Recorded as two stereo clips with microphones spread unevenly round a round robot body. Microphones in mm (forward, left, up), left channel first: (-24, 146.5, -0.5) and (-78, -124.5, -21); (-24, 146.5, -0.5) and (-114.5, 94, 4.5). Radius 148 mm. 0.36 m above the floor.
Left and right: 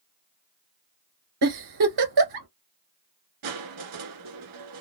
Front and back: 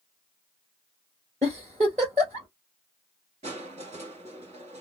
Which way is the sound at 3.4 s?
105° right.